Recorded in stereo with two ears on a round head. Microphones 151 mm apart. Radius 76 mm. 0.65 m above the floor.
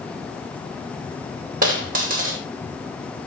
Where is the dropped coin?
55° right (ahead or behind), 3 m.